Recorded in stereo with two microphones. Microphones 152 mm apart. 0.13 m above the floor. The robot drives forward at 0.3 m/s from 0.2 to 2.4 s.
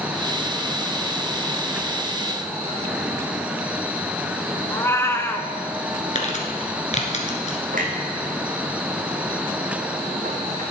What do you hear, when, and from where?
4.7 s a cat meowing: 15° left (ahead or behind), 0.8 m
6.2 s crumpling: 50° left (ahead or behind), 1.8 m
7.7 s a clunk: 60° right (ahead or behind), 2 m